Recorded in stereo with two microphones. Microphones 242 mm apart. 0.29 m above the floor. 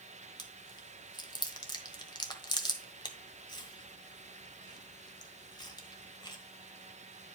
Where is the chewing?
15° left (ahead or behind), 1.2 m.